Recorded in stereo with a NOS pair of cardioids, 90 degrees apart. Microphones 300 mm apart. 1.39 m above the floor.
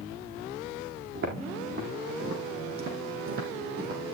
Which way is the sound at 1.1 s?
45° right.